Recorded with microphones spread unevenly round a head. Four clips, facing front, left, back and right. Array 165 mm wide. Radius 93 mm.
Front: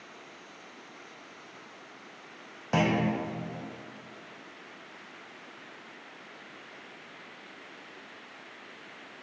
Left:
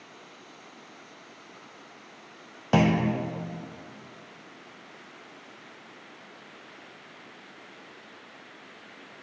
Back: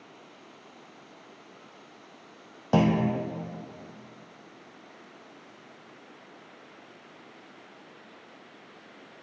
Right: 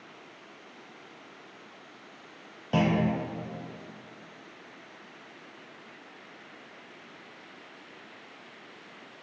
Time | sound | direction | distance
2.7 | a clunk | 140° left | 0.6 m